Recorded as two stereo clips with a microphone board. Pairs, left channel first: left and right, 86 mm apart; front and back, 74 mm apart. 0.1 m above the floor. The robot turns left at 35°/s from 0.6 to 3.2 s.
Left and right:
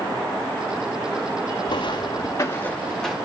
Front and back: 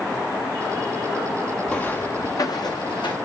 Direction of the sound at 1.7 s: 80° left.